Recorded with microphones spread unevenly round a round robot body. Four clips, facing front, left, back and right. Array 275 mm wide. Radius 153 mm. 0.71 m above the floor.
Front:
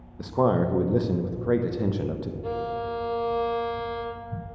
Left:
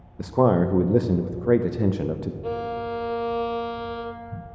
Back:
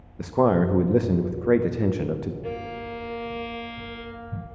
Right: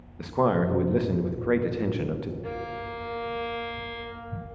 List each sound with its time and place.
0.2 s a man speaking: 135° left, 0.7 m
2.4 s a violin: 100° left, 0.8 m